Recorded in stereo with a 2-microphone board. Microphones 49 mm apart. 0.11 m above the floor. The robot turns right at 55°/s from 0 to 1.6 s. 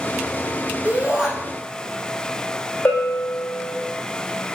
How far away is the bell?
About 3.5 m.